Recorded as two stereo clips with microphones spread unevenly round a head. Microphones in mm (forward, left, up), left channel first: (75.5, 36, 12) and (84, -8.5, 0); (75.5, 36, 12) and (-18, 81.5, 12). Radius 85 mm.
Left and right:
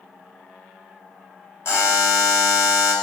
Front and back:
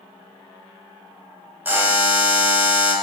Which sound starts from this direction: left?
A buzzer, at 1.6 s.